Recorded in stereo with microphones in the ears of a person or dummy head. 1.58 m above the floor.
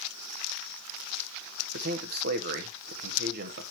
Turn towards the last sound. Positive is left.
turn(degrees=-60)  # may be behind; listen again after turning